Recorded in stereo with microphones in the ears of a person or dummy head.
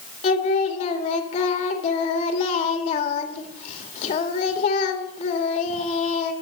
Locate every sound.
0.2 s singing: 40° left (ahead or behind), 1.7 m